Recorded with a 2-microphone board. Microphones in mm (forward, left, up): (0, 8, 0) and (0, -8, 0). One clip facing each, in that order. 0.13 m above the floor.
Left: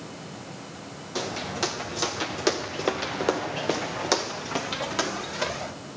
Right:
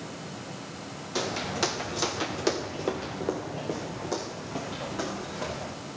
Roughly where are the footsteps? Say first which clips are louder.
Even; centre.